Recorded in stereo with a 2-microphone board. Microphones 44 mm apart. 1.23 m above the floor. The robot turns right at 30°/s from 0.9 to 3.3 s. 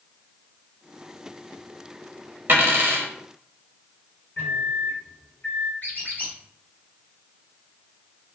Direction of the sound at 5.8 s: 45° left (ahead or behind).